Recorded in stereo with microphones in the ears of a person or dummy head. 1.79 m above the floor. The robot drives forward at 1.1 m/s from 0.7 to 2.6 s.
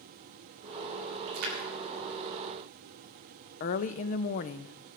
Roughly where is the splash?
Right.